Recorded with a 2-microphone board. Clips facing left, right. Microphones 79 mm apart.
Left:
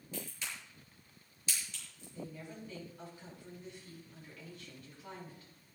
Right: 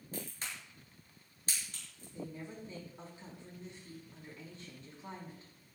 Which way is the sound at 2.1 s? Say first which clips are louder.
Right 2 dB; 30° right (ahead or behind).